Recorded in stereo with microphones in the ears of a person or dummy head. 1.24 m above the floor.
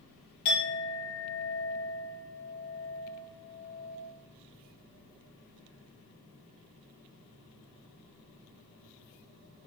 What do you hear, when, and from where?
0.5 s a clink: 50° left (ahead or behind), 1.0 m